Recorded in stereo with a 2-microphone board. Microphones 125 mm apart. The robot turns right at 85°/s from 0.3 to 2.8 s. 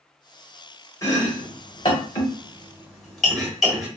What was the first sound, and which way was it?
Chopping, 25° left (ahead or behind).